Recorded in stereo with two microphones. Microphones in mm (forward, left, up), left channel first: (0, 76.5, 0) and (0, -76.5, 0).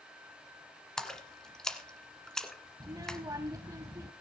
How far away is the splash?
About 1.6 m.